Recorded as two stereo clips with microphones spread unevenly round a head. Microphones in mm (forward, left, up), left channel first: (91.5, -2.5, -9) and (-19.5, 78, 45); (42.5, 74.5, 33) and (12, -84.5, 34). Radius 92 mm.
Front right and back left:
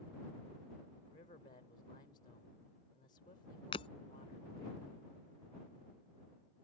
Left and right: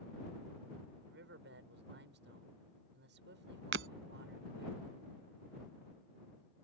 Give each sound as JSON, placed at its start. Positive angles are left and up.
{"t": 1.1, "sound": "a man speaking", "azimuth_deg": -95}
{"t": 3.7, "sound": "breaking glass", "azimuth_deg": -110}